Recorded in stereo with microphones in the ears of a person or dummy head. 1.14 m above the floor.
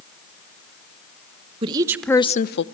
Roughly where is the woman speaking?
Right.